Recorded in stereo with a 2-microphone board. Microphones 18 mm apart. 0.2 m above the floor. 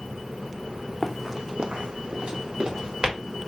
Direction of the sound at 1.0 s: 5° right (ahead or behind).